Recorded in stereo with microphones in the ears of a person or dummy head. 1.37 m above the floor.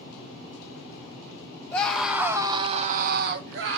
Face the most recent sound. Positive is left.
turn(degrees=-75)  # may be behind; listen again after turning